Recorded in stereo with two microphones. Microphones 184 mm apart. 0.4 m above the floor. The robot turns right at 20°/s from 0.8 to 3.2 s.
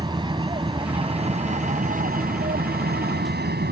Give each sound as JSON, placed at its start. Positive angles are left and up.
{"t": 0.0, "sound": "an aircraft", "side_deg": -25}